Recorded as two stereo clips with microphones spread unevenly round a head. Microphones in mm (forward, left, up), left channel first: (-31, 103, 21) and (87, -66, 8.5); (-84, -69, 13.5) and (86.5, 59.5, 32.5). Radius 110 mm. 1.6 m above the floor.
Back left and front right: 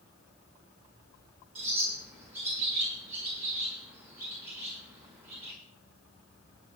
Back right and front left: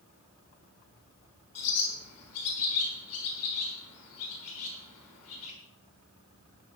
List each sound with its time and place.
1.6 s a bird: 135° right, 6 m